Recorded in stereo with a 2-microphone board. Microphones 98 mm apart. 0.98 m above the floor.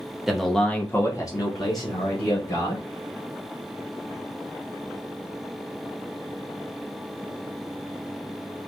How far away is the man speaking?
About 1.1 m.